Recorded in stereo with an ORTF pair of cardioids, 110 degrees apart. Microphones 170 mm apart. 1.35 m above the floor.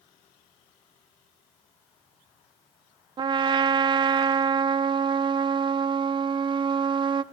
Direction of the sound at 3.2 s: 30° right.